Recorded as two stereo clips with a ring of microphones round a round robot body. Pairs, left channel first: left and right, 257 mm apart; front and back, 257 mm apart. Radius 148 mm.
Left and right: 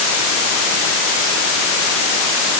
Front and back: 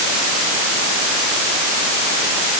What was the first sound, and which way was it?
Only background noise.